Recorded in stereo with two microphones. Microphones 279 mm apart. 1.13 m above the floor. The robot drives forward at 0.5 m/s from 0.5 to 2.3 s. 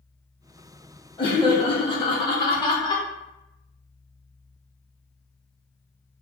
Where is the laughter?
15° left (ahead or behind), 0.7 m.